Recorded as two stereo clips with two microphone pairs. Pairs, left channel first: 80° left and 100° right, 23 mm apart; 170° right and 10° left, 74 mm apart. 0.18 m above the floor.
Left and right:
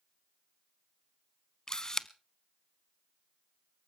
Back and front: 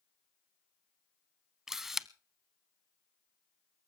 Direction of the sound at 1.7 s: 95° left.